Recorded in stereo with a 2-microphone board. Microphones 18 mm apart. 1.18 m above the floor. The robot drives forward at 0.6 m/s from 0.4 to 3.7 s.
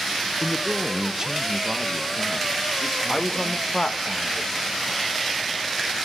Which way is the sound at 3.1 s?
25° left (ahead or behind).